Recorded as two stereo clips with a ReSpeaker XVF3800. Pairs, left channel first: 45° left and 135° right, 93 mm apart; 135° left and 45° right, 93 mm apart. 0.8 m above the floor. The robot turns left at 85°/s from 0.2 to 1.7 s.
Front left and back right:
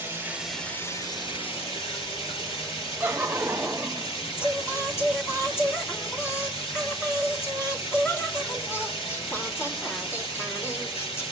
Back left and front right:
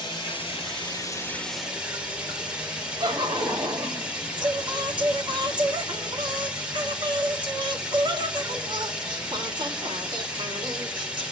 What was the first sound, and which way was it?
Running water, 160° left.